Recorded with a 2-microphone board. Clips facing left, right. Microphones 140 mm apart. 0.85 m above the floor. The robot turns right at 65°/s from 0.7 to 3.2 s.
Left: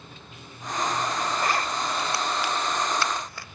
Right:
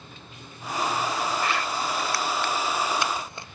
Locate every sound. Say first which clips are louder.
1.4 s a zipper: left 1 dB; 40° left (ahead or behind), 0.7 m; by 3.5 s 25° right (ahead or behind), 0.7 m